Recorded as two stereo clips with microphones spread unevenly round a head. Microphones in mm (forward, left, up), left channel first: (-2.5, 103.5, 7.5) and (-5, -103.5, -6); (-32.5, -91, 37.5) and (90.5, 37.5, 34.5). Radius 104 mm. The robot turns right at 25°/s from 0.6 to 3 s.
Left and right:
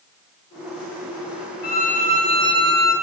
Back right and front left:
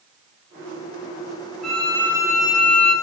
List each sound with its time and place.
1.6 s a violin: 135° left, 1.1 m; by 2.9 s 170° left, 1.1 m